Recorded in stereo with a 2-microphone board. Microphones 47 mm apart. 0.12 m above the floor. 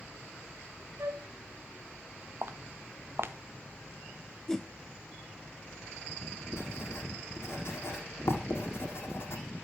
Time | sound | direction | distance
1.0 | a flute | 70° right (ahead or behind) | 1.1 m
2.4 | footsteps | 55° right (ahead or behind) | 1.5 m
4.5 | a whoosh | 10° left (ahead or behind) | 0.6 m
6.5 | writing | 65° left (ahead or behind) | 5.5 m